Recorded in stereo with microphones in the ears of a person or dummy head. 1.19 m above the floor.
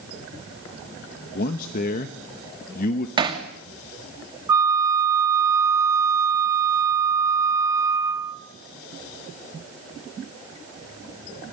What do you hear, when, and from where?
1.4 s a man speaking: 50° left (ahead or behind), 1.1 m
3.2 s hammering: 25° right (ahead or behind), 2.5 m
4.5 s a flute: 20° right (ahead or behind), 1.2 m